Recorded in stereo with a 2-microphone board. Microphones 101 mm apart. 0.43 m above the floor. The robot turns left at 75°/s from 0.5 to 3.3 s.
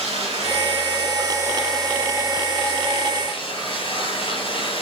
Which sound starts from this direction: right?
Running water, at 0.0 s.